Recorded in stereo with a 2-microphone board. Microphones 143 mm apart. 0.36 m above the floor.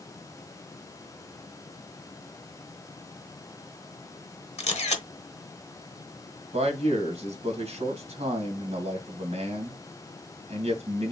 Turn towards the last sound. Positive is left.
turn(degrees=-50)  # may be behind; listen again after turning